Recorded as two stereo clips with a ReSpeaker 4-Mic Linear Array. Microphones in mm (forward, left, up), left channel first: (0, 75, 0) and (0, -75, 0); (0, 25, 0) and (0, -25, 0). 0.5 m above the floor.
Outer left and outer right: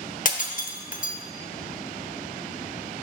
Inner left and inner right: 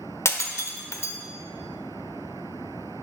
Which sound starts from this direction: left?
Breaking glass, at 0.2 s.